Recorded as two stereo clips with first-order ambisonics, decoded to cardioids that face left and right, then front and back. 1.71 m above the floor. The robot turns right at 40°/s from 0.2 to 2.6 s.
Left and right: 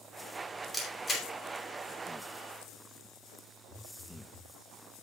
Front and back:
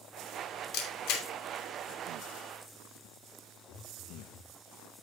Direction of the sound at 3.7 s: 20° left.